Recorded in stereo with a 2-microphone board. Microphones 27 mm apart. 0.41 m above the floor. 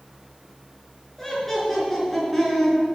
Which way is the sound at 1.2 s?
10° left (ahead or behind).